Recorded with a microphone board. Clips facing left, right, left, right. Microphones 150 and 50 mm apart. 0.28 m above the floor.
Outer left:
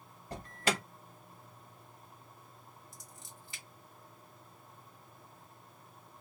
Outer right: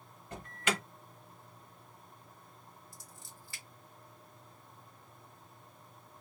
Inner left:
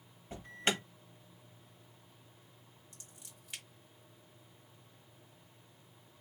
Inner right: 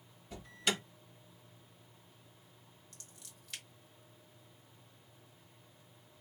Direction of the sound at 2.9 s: 20° left (ahead or behind).